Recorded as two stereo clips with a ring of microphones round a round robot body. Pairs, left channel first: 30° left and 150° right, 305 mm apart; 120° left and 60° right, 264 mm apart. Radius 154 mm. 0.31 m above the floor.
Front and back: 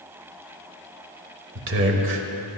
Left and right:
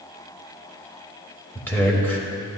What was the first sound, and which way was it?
A man speaking, 160° right.